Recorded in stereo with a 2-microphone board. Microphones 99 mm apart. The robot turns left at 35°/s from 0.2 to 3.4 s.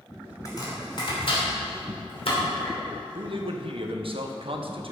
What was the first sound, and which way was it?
Chopping, 40° left (ahead or behind).